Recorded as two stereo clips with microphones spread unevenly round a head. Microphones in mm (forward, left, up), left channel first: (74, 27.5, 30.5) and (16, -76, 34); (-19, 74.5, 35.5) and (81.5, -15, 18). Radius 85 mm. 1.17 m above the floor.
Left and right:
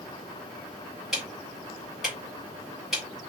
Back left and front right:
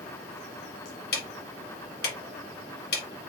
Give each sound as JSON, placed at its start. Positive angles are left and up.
{"t": 1.1, "sound": "ticking", "azimuth_deg": 155, "distance_m": 1.3}